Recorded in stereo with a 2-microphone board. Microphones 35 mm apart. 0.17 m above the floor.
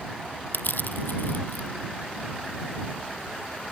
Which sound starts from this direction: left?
Crushing, at 0.5 s.